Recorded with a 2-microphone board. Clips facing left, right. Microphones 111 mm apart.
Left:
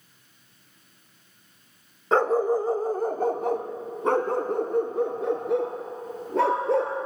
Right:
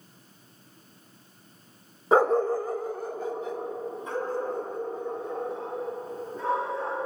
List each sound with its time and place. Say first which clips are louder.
2.1 s a dog barking: even; 10° right (ahead or behind), 0.7 m; by 7.0 s 85° left, 4 m